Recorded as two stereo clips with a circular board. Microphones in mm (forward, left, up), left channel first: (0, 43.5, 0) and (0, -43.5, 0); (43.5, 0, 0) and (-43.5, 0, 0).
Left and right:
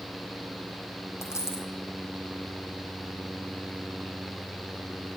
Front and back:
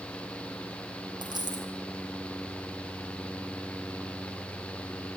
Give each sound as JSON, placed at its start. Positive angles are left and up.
{"t": 1.2, "sound": "a dropped coin", "azimuth_deg": 150, "distance_m": 3.5}